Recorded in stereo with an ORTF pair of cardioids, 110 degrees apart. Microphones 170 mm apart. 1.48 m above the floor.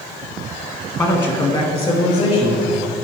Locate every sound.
1.0 s a man speaking: 20° left, 1.3 m; by 2.8 s 40° left, 3 m